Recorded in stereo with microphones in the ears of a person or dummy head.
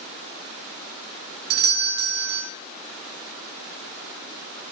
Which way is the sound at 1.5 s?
40° right (ahead or behind).